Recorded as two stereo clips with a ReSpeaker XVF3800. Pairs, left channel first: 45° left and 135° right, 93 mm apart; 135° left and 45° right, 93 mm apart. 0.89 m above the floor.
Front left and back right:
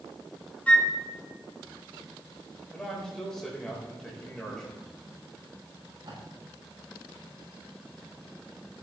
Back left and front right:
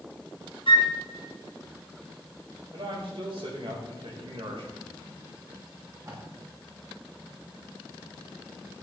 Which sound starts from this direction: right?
Tape being pulled, at 5.7 s.